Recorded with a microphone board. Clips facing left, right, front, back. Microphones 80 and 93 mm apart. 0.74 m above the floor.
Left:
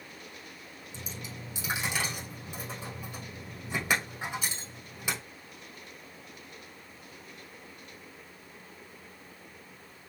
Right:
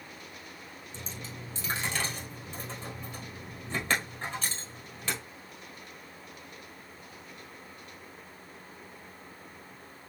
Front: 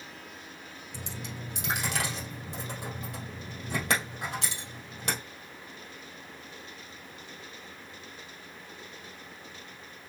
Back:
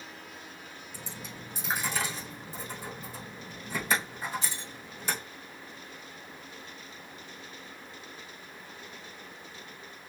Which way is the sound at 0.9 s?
10° left.